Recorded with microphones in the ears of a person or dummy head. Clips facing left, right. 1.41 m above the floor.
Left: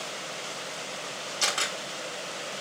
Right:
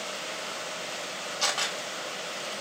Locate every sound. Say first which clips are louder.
1.4 s a camera shutter: even; 30° left (ahead or behind), 1.8 m